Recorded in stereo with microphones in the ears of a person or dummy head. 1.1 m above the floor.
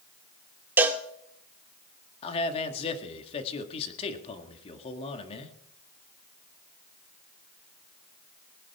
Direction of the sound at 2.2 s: 35° left (ahead or behind).